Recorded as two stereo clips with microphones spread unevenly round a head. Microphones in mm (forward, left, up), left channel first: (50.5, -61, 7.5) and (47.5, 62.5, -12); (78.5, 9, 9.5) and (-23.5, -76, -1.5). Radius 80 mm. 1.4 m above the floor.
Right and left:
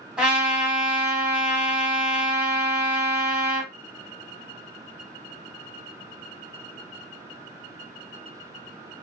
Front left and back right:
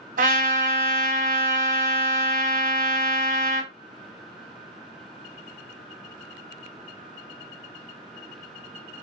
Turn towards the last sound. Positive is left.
turn(degrees=180)